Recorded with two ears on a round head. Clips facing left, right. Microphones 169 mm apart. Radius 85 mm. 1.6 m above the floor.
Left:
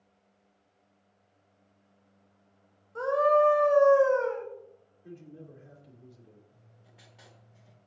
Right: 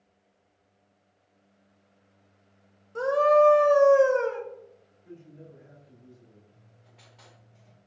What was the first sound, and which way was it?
A scream, 35° right (ahead or behind).